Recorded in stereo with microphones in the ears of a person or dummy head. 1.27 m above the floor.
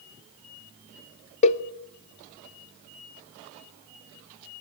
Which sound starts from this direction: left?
A cowbell, at 1.4 s.